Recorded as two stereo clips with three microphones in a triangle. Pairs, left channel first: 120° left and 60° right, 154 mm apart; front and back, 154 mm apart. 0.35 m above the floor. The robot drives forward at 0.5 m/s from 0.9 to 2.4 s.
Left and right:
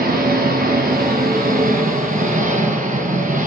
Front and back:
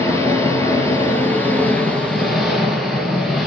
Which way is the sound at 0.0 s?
75° right.